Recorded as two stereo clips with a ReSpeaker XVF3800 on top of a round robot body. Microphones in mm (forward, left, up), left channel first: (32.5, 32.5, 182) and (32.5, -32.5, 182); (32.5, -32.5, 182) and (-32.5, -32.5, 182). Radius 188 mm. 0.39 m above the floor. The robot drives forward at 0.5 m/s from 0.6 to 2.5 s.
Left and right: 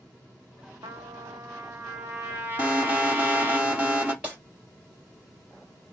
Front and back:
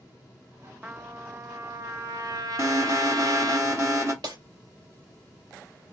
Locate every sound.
0.8 s a trumpet: 105° right, 0.7 m; by 3.6 s 150° right, 1.2 m
2.6 s an alarm: 150° right, 3 m
4.2 s breaking glass: 160° right, 3 m